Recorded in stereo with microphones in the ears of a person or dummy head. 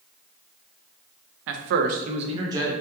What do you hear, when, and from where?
1.5 s a man speaking: 65° right (ahead or behind), 0.5 m; by 2.7 s 15° right (ahead or behind), 0.8 m